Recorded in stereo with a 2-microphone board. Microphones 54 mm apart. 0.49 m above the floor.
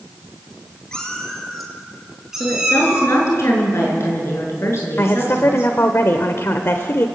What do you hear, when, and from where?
0.9 s a cat meowing: 15° left (ahead or behind), 3.5 m; by 3.2 s 15° right (ahead or behind), 5.5 m
2.4 s a woman speaking: 55° left (ahead or behind), 7 m
5.0 s a woman speaking: 55° left (ahead or behind), 1.4 m